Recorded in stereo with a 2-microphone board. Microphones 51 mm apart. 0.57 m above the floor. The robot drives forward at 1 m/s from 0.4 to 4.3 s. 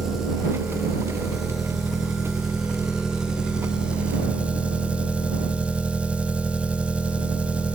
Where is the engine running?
5° right (ahead or behind), 5.5 m; by 7.8 s 25° right (ahead or behind), 1.7 m.